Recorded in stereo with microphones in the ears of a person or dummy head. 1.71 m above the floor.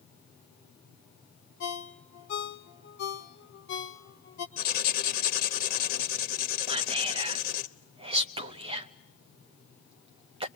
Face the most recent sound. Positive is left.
turn(degrees=-30)  # may be behind; listen again after turning